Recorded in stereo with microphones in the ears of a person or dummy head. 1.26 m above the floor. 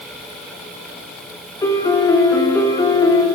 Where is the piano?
20° left (ahead or behind), 3 m.